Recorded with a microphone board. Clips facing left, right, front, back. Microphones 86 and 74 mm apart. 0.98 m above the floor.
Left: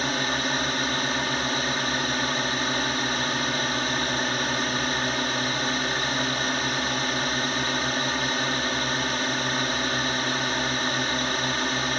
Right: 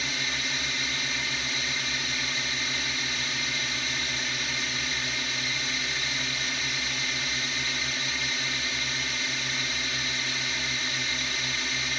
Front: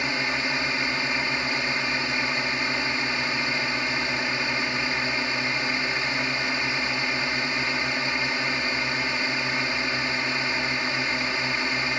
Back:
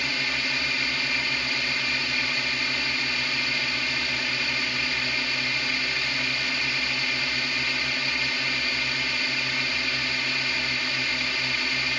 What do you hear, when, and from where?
0.0 s a drone: 60° left